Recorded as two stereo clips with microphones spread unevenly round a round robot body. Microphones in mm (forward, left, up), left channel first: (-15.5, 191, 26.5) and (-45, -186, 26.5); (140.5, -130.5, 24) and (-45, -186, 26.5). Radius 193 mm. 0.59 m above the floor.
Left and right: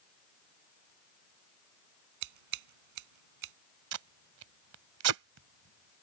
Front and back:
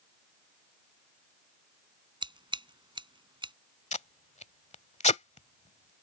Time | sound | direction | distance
2.2 | scissors | 95° right | ?
3.9 | tape being pulled | 40° right | ?